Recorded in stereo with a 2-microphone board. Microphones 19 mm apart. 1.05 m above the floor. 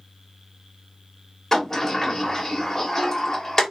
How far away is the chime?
No chime in this recording.